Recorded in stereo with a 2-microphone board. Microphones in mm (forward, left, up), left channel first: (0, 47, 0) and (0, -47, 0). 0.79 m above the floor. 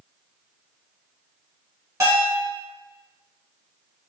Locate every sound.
2.0 s a bell: 35° right (ahead or behind), 1.9 m